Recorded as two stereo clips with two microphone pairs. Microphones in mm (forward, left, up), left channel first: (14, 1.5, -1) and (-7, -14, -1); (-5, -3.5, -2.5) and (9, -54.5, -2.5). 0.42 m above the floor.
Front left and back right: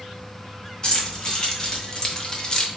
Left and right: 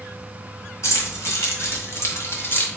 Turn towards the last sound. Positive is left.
turn(degrees=85)